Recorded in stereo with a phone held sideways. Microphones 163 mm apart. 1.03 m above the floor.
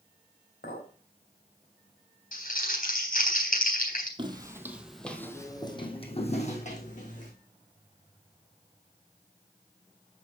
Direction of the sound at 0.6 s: 80° left.